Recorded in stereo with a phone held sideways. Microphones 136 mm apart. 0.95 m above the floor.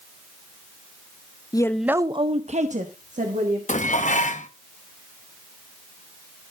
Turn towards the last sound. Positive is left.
turn(degrees=65)  # may be behind; listen again after turning